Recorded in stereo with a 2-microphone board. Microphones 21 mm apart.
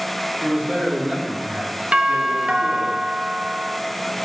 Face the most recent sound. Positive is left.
turn(degrees=-50)  # may be behind; listen again after turning